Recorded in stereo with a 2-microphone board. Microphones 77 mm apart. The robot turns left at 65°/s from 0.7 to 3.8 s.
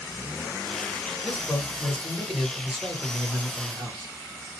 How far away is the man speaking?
About 1.8 m.